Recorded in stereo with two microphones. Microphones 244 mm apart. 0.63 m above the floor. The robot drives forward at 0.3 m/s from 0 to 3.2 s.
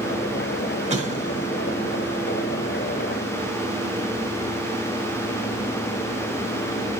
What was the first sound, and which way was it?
An explosion, 30° right (ahead or behind).